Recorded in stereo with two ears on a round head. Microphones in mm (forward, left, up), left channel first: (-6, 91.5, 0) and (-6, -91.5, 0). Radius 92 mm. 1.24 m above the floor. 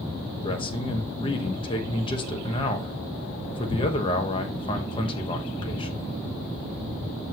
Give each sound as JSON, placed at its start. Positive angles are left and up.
{"t": 0.4, "sound": "a man speaking", "side_deg": 25, "distance_m": 1.1}